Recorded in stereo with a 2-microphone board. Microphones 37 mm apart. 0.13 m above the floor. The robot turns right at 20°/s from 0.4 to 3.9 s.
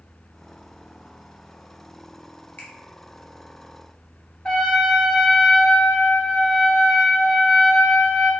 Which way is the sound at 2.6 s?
60° left (ahead or behind).